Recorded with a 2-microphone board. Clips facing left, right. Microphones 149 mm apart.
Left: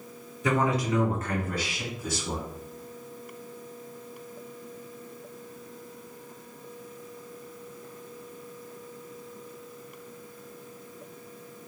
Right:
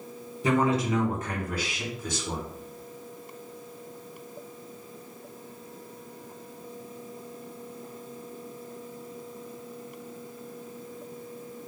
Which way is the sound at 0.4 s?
30° right (ahead or behind).